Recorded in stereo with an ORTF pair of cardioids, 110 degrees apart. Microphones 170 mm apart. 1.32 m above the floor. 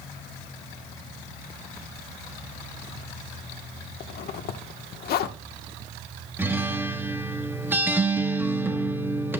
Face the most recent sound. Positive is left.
turn(degrees=-10)